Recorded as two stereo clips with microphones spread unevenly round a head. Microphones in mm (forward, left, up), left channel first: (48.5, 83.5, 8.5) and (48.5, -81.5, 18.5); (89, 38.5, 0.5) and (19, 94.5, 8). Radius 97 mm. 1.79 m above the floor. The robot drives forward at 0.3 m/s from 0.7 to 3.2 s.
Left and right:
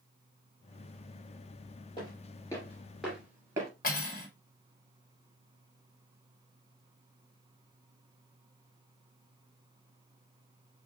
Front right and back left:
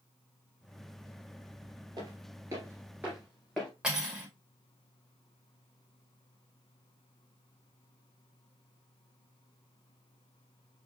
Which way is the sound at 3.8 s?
65° left.